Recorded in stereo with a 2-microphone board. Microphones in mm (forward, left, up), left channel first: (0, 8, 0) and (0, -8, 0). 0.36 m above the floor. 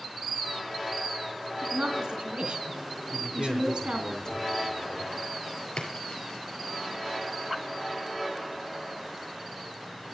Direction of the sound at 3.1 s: 25° left (ahead or behind).